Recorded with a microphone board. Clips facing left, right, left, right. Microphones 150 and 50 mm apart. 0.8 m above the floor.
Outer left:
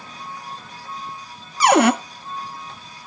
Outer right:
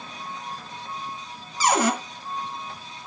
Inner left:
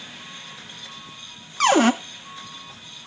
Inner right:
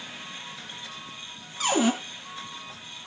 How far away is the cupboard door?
About 0.6 m.